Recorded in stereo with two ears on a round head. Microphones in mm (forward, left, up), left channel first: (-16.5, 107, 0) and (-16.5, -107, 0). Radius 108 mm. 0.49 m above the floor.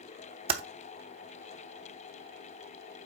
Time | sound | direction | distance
0.5 | typing on a keyboard | 25° right (ahead or behind) | 0.9 m